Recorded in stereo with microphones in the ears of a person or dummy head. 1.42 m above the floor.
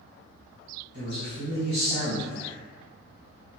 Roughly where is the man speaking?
Right.